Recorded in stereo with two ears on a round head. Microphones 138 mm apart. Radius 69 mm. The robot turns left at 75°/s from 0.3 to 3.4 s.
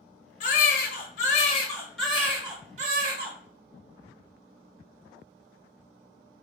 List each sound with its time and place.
0.4 s a baby crying: 125° left, 0.7 m; by 3.4 s 100° right, 0.7 m